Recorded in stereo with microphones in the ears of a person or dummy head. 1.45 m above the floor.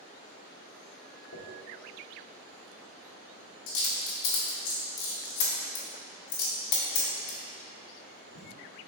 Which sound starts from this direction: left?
A dropped coin, at 1.3 s.